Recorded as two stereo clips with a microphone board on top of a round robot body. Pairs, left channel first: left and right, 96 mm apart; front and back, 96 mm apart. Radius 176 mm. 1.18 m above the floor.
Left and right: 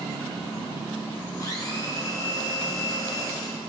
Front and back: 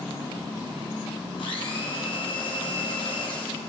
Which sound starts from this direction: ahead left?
A blender, at 1.4 s.